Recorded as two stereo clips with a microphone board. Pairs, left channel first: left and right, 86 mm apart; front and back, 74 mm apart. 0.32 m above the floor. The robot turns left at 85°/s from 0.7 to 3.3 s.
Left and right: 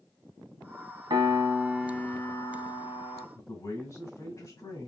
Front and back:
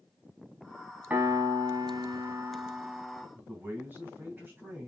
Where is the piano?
110° right, 0.8 m; by 3.2 s 65° left, 0.8 m.